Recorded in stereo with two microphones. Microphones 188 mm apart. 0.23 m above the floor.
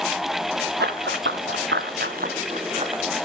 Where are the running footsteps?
65° right (ahead or behind), 1.6 m; by 3.0 s 30° right (ahead or behind), 1.9 m.